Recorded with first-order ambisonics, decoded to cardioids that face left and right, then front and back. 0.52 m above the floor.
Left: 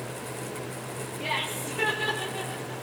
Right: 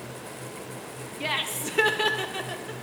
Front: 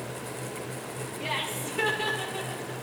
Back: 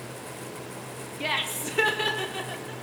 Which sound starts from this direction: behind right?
Laughter, at 1.2 s.